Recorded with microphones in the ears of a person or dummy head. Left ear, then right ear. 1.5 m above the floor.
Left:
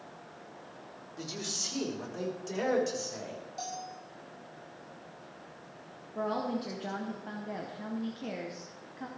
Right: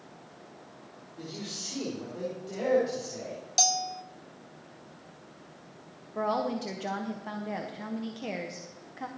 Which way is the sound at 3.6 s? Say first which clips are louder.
Right 15 dB; 70° right (ahead or behind).